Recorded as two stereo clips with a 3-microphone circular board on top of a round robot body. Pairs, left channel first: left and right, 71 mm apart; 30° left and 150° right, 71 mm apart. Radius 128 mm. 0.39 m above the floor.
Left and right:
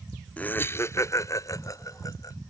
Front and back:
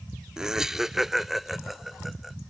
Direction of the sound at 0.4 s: 140° left.